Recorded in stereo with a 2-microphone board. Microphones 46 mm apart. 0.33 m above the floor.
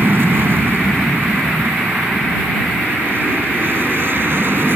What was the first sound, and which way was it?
An aircraft, 55° right (ahead or behind).